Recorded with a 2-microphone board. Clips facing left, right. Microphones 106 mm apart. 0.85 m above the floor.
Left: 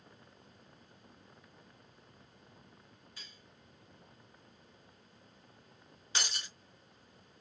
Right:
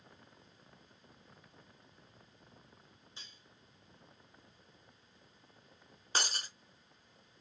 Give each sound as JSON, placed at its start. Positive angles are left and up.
{"t": 3.2, "sound": "cutlery clinking", "side_deg": -25, "distance_m": 2.0}
{"t": 6.2, "sound": "breaking glass", "side_deg": -40, "distance_m": 0.7}